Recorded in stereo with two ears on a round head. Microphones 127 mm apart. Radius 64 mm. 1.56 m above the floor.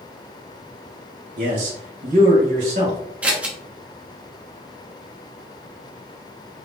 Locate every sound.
1.4 s a man speaking: 55° right (ahead or behind), 1.4 m; by 3.0 s 60° right (ahead or behind), 2 m
3.2 s scissors: 10° right (ahead or behind), 0.9 m